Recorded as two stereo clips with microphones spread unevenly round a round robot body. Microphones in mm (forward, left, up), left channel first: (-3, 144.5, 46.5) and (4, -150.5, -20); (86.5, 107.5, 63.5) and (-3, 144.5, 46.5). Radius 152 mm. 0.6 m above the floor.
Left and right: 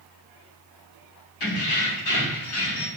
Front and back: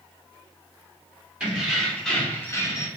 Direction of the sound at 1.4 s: 80° left.